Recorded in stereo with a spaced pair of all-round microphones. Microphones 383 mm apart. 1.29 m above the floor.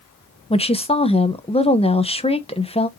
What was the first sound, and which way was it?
A woman speaking, 15° left (ahead or behind).